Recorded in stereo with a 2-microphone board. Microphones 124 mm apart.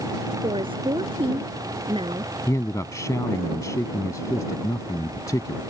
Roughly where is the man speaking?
Left.